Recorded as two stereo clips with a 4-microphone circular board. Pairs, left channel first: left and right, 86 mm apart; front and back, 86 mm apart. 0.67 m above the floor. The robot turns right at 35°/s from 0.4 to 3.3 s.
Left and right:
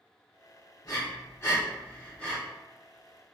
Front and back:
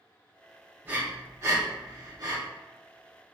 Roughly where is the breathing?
Behind left.